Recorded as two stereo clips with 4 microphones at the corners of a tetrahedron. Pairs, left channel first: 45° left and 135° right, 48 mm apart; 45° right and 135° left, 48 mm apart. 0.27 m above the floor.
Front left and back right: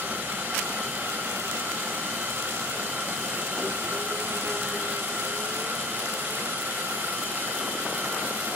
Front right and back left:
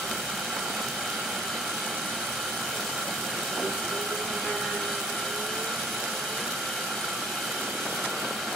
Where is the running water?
130° right, 1.0 m.